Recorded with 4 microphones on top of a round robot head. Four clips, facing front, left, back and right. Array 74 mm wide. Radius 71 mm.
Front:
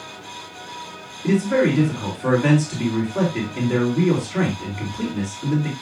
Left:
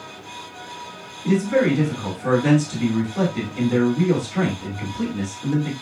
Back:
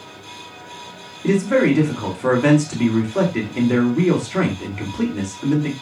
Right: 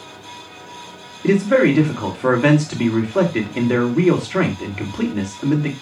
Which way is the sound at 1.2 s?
105° right.